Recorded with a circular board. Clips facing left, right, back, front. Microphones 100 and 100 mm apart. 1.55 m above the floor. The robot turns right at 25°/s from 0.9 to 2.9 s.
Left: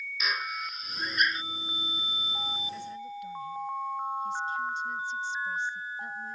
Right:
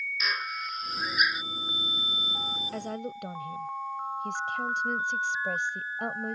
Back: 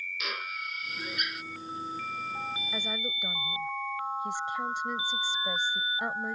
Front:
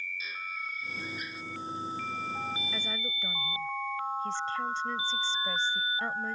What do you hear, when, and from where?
0.2 s a drill: straight behind; by 1.4 s 170° right
2.7 s a woman speaking: 110° right; by 6.3 s 105° right